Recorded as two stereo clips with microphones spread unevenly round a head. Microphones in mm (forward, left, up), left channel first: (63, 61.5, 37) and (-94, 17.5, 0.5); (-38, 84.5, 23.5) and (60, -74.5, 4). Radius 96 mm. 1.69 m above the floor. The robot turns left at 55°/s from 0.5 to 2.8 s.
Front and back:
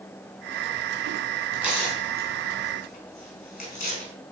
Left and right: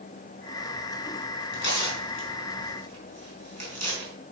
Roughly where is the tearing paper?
Behind left.